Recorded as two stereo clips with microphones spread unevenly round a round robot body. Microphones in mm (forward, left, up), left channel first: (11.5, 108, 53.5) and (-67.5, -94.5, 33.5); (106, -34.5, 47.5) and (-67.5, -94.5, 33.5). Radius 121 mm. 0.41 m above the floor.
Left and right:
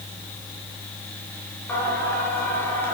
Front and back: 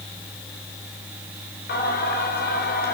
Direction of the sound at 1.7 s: 15° right.